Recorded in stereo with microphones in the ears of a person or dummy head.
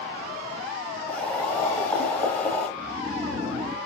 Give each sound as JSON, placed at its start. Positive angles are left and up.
{"t": 1.1, "sound": "boiling", "side_deg": 10, "distance_m": 2.5}
{"t": 2.8, "sound": "snoring", "side_deg": 10, "distance_m": 1.9}